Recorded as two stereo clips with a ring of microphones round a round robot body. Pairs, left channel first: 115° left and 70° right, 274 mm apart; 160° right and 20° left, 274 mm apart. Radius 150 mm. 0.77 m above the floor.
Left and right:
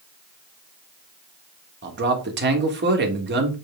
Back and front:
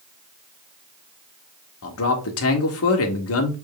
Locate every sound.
1.8 s a man speaking: 120° right, 1.7 m